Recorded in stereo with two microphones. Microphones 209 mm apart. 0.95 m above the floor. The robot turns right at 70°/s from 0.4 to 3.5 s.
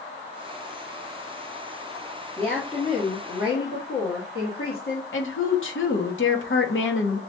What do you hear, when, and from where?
2.4 s a woman speaking: straight ahead, 1.4 m; by 5.0 s 80° left, 1.4 m
5.1 s a woman speaking: 70° left (ahead or behind), 1.1 m